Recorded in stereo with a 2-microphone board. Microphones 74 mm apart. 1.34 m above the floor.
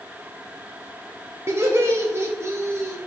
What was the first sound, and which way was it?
Laughter, 35° right (ahead or behind).